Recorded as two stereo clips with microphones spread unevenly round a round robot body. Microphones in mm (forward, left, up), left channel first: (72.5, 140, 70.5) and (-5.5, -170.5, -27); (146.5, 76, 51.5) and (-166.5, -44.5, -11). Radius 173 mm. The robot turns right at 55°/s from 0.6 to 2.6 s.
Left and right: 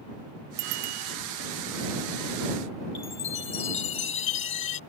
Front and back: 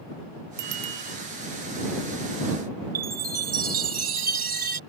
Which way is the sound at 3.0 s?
135° left.